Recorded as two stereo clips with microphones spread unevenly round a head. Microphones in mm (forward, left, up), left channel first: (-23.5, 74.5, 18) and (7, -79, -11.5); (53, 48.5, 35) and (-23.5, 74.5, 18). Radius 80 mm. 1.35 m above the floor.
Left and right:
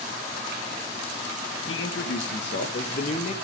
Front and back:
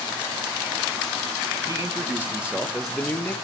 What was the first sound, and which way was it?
A man speaking, 105° left.